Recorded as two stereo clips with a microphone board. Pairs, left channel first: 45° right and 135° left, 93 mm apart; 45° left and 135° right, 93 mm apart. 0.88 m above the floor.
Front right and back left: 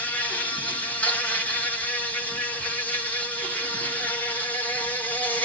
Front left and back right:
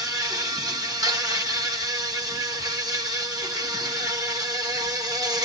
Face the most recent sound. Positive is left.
turn(degrees=-110)